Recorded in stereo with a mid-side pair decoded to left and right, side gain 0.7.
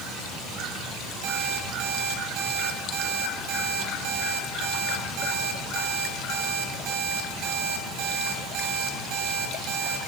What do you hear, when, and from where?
1.2 s an alarm clock: 65° right, 4.5 m